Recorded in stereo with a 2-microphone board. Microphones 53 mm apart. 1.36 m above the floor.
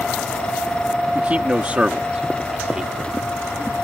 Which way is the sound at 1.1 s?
30° right (ahead or behind).